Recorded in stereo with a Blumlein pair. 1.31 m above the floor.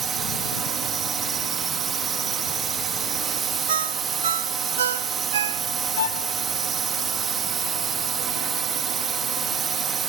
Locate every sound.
0.0 s a drone: 25° right
3.7 s a ringtone: 65° right
6.0 s a violin: 65° left